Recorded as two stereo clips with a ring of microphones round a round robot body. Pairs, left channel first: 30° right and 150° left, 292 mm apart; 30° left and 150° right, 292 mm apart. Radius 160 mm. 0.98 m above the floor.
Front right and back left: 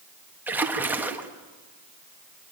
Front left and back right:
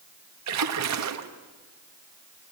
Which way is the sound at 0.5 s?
125° right.